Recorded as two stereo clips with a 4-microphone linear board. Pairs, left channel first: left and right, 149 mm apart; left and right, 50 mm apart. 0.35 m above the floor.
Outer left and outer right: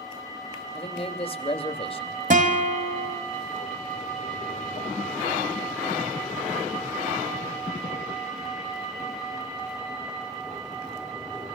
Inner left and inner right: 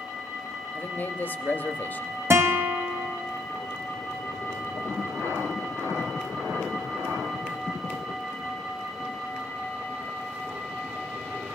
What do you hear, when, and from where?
0.8 s a man speaking: 40° left (ahead or behind), 1.1 m
2.3 s a guitar: 60° right (ahead or behind), 1.2 m